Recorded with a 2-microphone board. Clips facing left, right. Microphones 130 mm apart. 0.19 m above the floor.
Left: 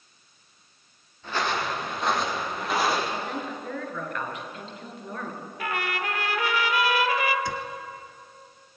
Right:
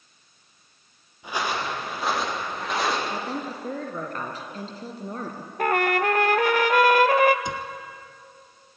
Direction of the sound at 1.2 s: 15° right (ahead or behind).